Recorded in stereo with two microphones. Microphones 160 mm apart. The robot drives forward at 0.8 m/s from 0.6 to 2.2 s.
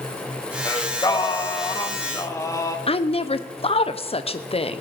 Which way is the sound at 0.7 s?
20° left (ahead or behind).